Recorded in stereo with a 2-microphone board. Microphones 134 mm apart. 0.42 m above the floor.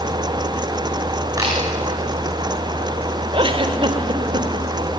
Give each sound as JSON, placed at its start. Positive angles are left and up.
{"t": 1.4, "sound": "a camera shutter", "side_deg": -25, "distance_m": 7.5}
{"t": 3.3, "sound": "a giggle", "side_deg": -40, "distance_m": 1.7}